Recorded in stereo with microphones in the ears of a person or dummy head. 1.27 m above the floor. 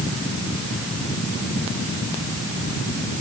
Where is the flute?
I don't hear a flute.